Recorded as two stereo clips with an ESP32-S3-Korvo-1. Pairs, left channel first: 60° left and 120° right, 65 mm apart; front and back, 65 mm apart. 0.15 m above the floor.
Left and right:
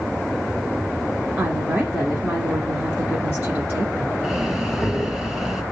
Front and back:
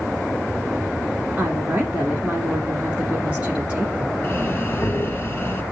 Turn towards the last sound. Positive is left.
turn(degrees=-35)